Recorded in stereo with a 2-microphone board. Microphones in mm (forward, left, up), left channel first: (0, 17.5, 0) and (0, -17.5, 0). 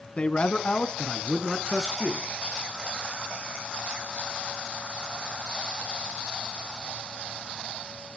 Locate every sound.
0.2 s a man speaking: 35° left (ahead or behind), 1.7 m; by 2.3 s 15° left (ahead or behind), 3 m